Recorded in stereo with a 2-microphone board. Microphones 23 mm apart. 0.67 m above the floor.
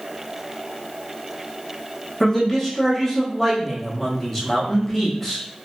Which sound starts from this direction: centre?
A man speaking, at 2.2 s.